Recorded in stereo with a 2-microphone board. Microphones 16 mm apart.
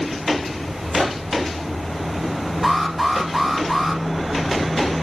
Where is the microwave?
35° right (ahead or behind), 7.5 m.